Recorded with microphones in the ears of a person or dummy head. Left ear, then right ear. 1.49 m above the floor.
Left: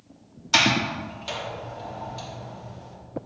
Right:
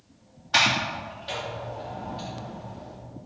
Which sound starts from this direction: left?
A sliding door, at 0.5 s.